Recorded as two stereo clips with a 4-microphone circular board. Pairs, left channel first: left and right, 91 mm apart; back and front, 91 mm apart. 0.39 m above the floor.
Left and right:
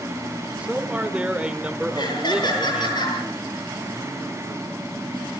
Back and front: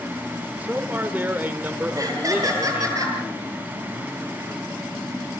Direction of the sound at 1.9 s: 50° left.